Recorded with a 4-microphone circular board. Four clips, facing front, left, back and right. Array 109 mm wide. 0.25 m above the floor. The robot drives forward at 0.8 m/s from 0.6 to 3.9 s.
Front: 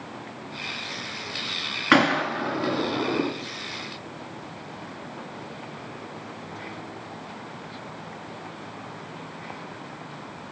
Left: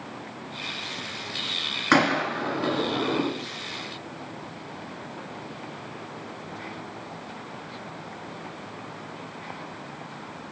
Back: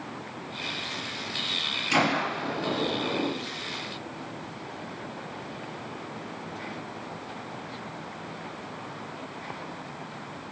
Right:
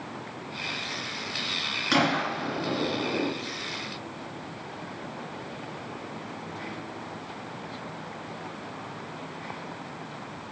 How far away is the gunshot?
About 2.5 m.